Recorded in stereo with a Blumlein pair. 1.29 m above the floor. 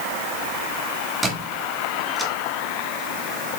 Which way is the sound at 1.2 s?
10° right.